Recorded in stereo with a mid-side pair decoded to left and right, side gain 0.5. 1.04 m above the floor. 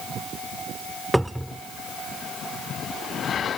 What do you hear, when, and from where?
1.1 s a cupboard door: straight ahead